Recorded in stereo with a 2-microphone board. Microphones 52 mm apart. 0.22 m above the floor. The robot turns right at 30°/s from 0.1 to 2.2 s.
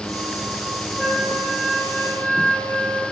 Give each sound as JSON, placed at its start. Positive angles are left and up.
{"t": 1.0, "sound": "a flute", "azimuth_deg": 15, "distance_m": 3.0}